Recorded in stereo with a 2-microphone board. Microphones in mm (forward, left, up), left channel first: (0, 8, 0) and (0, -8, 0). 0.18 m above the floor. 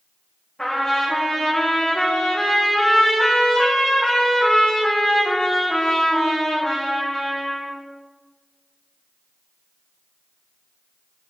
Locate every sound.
0.6 s a trumpet: 30° left (ahead or behind), 3.5 m